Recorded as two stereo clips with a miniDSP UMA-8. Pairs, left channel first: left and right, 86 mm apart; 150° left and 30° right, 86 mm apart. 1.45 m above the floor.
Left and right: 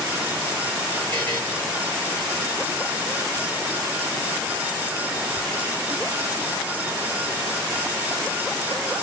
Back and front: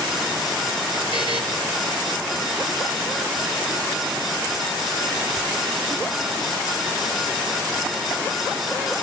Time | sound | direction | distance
1.1 | a buzzer | 160° left | 5 m